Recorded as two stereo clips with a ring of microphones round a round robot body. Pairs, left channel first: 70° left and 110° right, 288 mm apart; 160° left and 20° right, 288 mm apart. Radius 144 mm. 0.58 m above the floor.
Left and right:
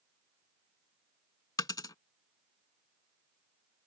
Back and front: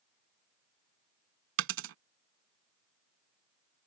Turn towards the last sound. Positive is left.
turn(degrees=-5)